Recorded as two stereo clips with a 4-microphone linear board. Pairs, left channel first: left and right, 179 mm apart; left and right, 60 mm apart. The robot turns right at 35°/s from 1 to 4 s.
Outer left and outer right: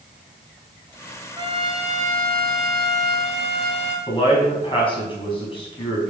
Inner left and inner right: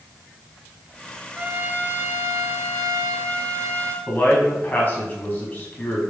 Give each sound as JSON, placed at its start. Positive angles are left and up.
{"t": 1.4, "sound": "a trumpet", "azimuth_deg": -155, "distance_m": 1.5}
{"t": 4.1, "sound": "a man speaking", "side_deg": 30, "distance_m": 4.5}